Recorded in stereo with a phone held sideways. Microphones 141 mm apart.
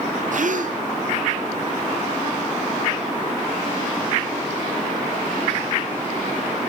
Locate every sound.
0.3 s a gasp: 65° right (ahead or behind), 0.6 m